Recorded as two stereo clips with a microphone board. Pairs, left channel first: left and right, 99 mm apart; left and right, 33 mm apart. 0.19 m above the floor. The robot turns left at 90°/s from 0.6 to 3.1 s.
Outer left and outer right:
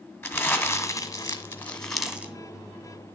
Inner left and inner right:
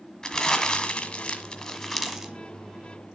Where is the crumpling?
130° left, 1.6 m; by 2.3 s 30° right, 1.6 m.